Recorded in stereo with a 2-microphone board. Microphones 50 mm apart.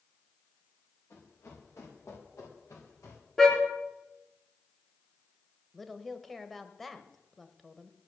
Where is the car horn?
10° left (ahead or behind), 3.5 m.